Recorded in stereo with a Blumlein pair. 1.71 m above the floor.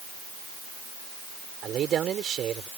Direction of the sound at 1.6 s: 25° right.